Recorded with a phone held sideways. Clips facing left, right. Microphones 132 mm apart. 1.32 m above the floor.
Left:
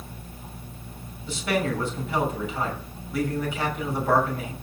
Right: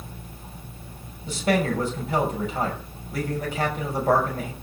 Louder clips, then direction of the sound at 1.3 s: Right 3 dB; 45° right (ahead or behind).